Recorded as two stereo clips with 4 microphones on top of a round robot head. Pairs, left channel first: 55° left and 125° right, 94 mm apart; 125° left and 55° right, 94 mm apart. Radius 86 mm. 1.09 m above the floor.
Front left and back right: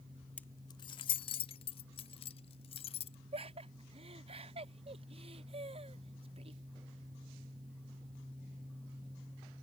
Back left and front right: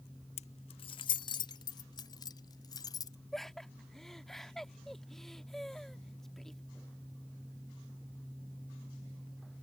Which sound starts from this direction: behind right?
Laughter, at 3.3 s.